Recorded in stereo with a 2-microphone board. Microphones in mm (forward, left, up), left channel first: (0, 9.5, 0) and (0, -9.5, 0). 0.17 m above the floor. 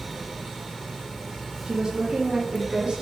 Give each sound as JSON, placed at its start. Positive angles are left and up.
{"t": 1.6, "sound": "a woman speaking", "side_deg": -45, "distance_m": 5.0}